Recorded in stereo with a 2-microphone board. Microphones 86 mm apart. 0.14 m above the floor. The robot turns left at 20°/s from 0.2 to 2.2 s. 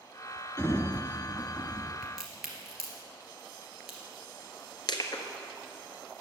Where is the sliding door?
35° left (ahead or behind), 0.6 m; by 1.9 s 50° left (ahead or behind), 0.6 m.